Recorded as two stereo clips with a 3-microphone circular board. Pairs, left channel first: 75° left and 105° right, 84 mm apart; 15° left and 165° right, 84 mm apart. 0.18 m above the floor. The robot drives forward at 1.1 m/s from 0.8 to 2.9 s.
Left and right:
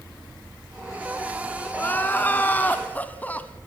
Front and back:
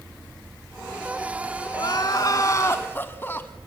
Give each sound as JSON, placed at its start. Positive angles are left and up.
{"t": 1.7, "sound": "crying", "azimuth_deg": 10, "distance_m": 2.0}